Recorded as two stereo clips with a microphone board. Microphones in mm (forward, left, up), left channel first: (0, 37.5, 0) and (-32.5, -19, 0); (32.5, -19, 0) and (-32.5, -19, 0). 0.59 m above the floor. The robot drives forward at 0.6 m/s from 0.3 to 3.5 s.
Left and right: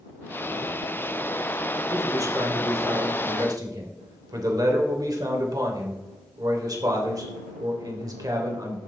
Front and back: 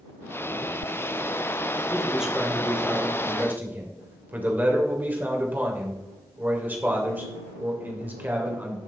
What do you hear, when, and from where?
1.9 s a man speaking: 95° right, 2.5 m; by 8.8 s 120° right, 2.5 m